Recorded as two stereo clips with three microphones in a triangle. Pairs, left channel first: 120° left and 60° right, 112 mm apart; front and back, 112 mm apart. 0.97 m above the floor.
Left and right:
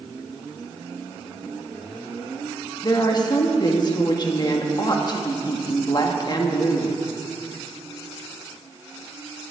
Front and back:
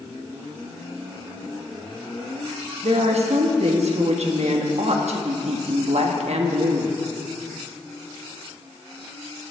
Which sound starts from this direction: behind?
A woman speaking, at 2.8 s.